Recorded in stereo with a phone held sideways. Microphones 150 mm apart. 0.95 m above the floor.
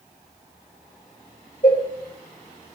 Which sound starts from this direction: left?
A cowbell, at 1.6 s.